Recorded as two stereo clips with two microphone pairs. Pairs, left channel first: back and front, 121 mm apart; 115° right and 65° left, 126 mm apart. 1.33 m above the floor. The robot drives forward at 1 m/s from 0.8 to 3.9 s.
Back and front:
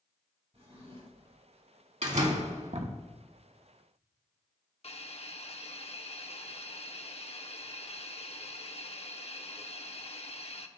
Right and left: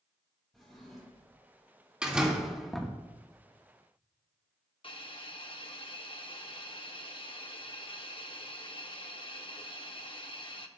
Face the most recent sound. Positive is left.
turn(degrees=-160)